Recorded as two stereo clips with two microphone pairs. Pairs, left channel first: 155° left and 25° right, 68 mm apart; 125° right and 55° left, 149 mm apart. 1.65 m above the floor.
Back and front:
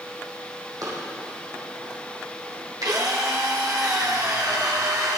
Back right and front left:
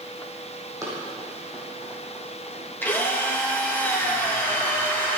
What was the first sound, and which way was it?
Running footsteps, 10° right.